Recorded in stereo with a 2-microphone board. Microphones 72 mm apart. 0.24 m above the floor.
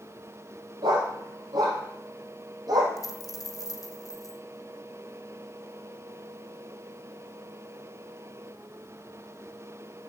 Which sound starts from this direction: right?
A dog barking, at 0.8 s.